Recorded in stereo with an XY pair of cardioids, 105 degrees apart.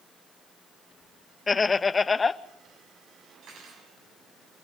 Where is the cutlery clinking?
65° right, 7 m.